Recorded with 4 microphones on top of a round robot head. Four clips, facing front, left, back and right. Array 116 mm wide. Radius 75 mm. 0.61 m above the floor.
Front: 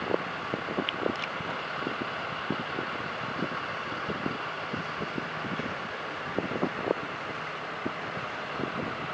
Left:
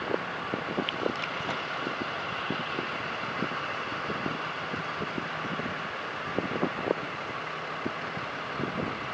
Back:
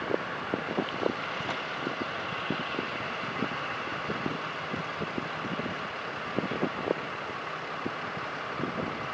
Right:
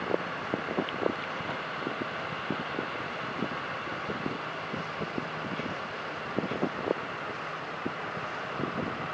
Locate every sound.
Only background noise.